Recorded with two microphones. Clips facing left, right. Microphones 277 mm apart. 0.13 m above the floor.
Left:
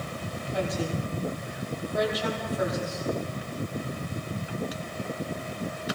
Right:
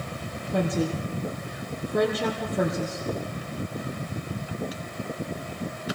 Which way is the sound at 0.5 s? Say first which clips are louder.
Right 4 dB; 60° right (ahead or behind).